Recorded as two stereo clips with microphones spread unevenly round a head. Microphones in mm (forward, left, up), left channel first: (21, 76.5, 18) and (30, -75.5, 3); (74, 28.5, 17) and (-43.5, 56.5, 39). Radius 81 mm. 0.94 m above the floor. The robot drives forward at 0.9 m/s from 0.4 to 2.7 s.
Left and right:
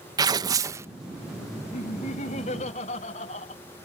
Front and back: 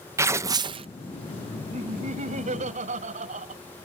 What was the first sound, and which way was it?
Tearing paper, 125° right.